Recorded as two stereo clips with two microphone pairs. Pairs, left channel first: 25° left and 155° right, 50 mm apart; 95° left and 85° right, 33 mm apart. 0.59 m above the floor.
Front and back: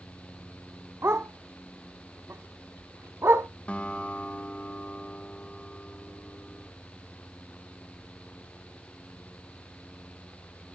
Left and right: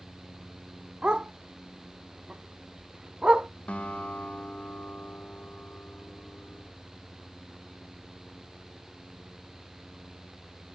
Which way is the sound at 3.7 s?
80° left.